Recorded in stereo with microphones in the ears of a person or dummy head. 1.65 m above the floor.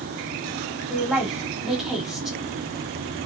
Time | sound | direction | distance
0.9 | a woman speaking | 5° right (ahead or behind) | 0.8 m